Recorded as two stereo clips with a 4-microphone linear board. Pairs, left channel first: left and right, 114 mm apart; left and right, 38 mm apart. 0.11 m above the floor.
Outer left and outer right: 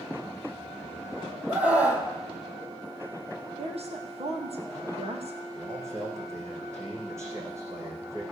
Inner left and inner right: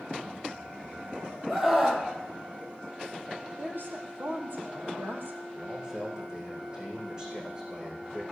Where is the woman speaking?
60° right (ahead or behind), 3 m.